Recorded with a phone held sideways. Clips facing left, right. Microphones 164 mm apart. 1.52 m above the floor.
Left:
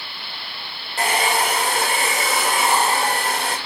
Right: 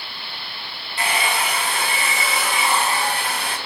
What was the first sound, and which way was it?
A hair dryer, 45° left (ahead or behind).